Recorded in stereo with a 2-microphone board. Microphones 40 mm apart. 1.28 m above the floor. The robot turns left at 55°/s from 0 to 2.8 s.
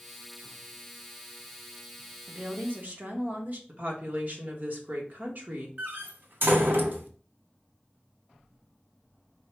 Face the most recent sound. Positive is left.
turn(degrees=-65)  # may be behind; listen again after turning